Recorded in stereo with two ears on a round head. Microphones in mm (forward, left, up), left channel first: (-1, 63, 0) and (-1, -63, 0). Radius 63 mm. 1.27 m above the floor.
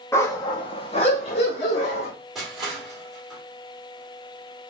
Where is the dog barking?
20° left (ahead or behind), 0.7 m; by 2.1 s 45° left (ahead or behind), 1.5 m.